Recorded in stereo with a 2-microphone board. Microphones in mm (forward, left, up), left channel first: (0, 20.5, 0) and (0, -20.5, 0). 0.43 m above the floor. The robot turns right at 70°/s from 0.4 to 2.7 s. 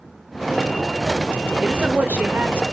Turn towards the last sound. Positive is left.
turn(degrees=-60)